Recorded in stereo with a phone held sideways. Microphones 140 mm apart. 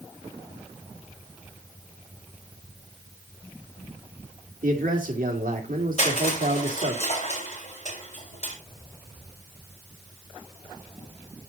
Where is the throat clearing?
I don't hear throat clearing.